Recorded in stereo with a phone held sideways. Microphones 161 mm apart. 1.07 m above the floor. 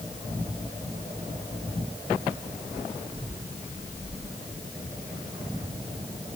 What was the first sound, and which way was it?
Only background noise.